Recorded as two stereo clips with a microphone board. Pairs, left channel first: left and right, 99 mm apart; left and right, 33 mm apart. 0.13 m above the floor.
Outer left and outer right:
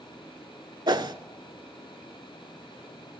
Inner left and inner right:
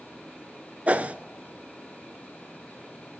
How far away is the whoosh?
About 0.5 m.